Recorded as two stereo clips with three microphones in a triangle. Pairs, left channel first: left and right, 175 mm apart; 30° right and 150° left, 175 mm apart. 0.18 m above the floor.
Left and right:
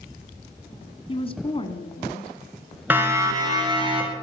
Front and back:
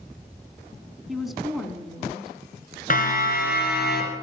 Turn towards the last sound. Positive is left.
turn(degrees=-35)